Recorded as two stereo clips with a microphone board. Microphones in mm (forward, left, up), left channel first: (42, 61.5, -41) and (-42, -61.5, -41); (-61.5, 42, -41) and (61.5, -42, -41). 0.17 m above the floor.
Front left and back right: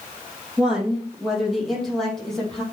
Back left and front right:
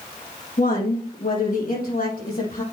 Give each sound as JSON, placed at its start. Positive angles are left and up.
{"t": 0.6, "sound": "a woman speaking", "azimuth_deg": 150, "distance_m": 4.5}